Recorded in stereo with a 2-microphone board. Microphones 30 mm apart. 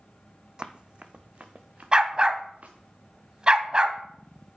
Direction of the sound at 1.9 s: 30° right (ahead or behind).